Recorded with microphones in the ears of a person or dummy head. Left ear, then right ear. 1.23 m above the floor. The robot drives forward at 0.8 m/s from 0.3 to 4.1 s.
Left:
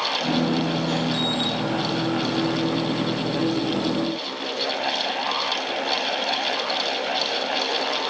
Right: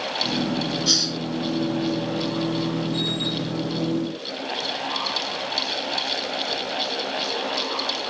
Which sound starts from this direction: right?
A hiss, at 0.9 s.